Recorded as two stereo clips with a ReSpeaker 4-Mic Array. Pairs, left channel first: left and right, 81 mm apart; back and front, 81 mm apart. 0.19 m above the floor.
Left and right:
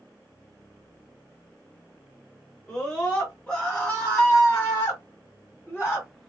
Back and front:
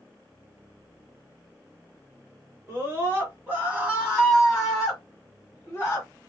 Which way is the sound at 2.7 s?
15° left.